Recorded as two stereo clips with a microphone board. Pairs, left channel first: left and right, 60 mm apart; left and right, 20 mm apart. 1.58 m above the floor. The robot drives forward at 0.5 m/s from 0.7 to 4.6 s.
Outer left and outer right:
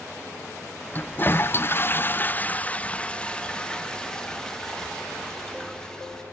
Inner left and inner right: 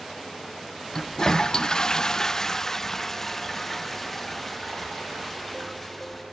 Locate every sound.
0.9 s a toilet flushing: 30° left (ahead or behind), 0.6 m; by 6.2 s 10° left (ahead or behind), 1.6 m